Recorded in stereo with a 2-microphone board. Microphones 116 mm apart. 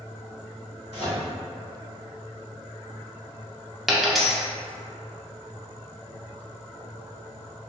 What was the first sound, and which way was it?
A microwave, 55° left (ahead or behind).